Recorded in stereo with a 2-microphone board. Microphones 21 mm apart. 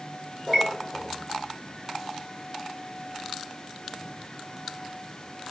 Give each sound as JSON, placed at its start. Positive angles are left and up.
{"t": 0.5, "sound": "a chime", "side_deg": 15, "distance_m": 7.0}